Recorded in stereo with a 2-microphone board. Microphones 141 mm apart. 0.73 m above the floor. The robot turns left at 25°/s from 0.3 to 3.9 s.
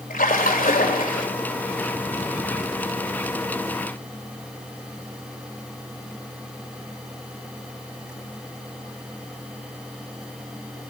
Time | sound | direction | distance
0.1 | a splash | 80° left | 2.5 m